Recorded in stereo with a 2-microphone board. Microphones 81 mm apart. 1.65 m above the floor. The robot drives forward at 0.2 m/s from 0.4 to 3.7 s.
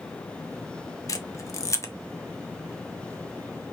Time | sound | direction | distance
1.1 | a camera shutter | 45° left (ahead or behind) | 0.6 m